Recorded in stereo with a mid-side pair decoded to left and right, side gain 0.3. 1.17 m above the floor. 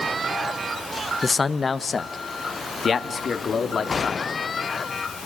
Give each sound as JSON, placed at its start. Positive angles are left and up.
{"t": 1.2, "sound": "a man speaking", "azimuth_deg": 40, "distance_m": 1.1}